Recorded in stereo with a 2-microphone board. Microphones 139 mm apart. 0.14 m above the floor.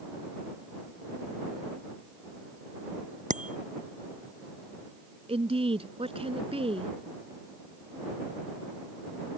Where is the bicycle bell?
60° right (ahead or behind).